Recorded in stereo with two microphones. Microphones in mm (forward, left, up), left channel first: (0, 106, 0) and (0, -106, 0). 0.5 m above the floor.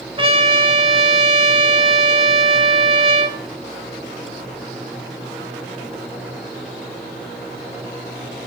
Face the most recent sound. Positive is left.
turn(degrees=-25)  # may be behind; listen again after turning